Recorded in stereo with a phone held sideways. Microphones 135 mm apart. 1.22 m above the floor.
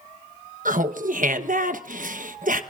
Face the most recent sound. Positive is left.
turn(degrees=-85)